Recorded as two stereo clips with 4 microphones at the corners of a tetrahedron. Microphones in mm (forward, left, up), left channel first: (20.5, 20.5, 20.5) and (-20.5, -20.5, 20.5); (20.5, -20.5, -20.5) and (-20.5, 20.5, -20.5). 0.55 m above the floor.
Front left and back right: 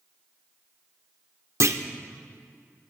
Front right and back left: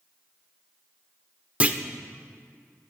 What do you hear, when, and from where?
1.6 s a clunk: 165° right, 0.5 m